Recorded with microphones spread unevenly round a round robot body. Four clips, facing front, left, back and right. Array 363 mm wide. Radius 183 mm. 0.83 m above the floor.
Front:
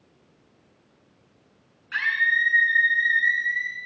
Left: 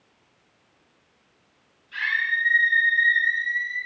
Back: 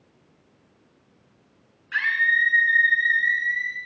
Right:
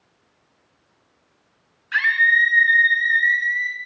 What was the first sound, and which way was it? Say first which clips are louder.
A scream: right 8 dB, back 1 dB; 60° right.